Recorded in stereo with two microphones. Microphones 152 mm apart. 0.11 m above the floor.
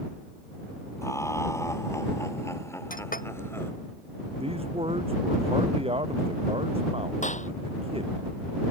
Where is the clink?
65° left (ahead or behind).